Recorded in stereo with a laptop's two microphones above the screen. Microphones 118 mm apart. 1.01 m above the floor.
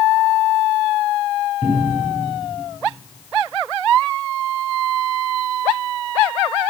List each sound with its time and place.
1.6 s a cupboard door: centre (ahead or behind), 8 m